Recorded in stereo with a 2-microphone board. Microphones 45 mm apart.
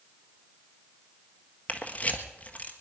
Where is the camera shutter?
35° left (ahead or behind), 1.4 m.